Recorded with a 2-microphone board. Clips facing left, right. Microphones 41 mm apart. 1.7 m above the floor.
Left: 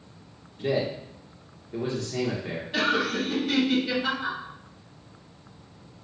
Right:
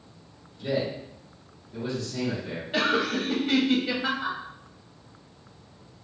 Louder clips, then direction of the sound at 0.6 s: Left 2 dB; 40° left (ahead or behind).